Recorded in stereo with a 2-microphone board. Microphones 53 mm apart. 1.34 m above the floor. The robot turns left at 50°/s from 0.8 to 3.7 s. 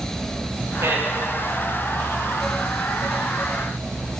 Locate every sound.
0.8 s a man speaking: 60° right (ahead or behind), 2.0 m; by 1.1 s 45° right (ahead or behind), 2.0 m